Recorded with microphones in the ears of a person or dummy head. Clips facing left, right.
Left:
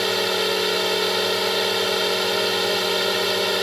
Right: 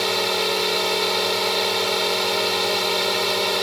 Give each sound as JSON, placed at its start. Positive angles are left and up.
{"t": 0.0, "sound": "a drone", "side_deg": 5}